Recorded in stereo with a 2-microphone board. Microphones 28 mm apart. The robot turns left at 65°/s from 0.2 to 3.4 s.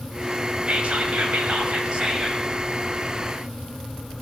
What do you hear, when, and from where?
0.7 s whispering: 55° right, 1.8 m; by 2.5 s 175° right, 1.8 m